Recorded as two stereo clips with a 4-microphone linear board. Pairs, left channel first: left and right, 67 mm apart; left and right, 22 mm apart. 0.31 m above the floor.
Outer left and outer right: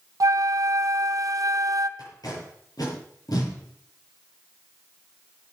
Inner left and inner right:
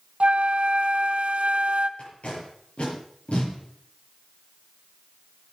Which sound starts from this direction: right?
A flute, at 0.2 s.